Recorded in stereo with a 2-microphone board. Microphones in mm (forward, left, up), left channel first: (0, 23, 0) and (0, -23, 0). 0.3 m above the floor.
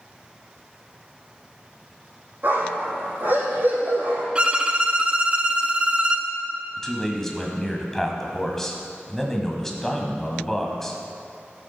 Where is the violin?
25° right (ahead or behind), 0.9 m.